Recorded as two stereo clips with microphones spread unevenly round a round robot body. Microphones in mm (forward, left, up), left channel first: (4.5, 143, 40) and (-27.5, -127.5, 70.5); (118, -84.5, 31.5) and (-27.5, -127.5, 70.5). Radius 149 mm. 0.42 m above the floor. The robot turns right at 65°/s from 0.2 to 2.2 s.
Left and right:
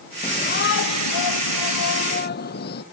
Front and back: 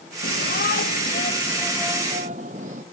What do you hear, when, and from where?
0.2 s a shout: 10° left; by 2.8 s 135° left